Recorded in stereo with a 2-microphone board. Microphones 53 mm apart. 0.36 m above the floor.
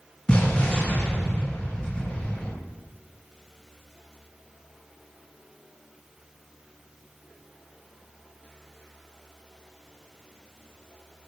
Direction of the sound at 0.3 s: 20° left (ahead or behind).